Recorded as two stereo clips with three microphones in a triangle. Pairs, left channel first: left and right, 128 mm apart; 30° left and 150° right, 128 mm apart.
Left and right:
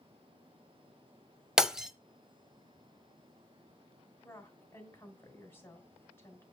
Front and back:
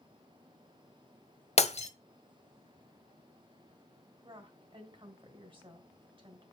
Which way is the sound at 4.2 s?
160° left.